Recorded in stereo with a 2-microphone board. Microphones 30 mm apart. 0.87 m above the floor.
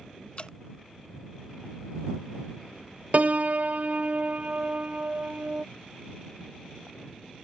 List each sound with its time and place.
0.4 s dripping: 40° left (ahead or behind)
3.1 s a piano: 55° right (ahead or behind)